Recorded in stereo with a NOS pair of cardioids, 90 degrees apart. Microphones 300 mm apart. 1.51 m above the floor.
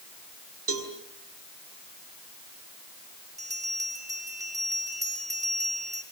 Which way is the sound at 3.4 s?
10° right.